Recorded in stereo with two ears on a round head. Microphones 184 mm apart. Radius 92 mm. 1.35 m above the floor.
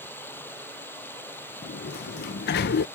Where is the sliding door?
50° left (ahead or behind).